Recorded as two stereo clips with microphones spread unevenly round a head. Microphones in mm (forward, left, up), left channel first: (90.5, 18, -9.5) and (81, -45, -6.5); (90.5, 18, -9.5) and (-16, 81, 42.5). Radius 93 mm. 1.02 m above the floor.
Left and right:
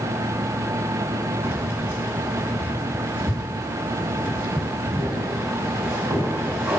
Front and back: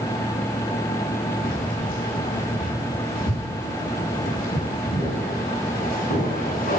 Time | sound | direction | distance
1.4 | keys jangling | 45° right | 6.5 m